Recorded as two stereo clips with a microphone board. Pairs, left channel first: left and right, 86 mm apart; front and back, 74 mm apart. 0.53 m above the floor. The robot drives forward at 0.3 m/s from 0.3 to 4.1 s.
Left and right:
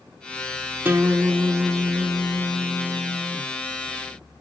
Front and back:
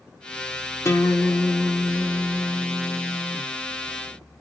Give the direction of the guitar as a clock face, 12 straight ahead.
1 o'clock.